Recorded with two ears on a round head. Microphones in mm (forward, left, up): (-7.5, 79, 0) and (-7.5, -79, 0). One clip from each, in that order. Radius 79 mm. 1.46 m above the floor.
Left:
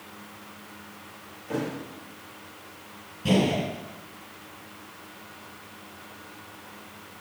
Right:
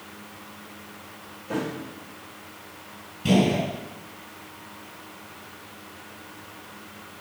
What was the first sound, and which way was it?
A thud, 10° left (ahead or behind).